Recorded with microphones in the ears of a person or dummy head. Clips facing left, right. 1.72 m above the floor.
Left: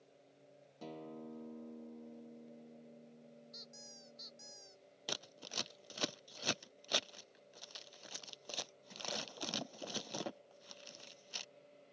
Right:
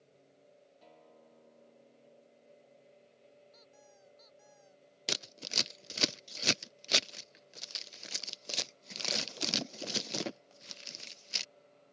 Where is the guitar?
65° left (ahead or behind).